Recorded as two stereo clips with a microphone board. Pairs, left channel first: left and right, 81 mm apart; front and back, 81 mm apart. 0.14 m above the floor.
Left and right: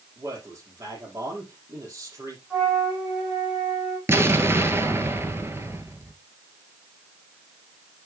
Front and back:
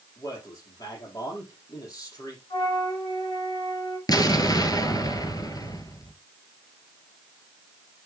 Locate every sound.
0.2 s a man speaking: 40° right, 5 m
2.5 s a flute: 10° right, 7 m
4.1 s an explosion: 35° right, 1.5 m